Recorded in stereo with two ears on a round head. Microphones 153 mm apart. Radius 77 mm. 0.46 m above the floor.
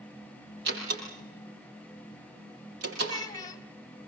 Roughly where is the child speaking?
Left.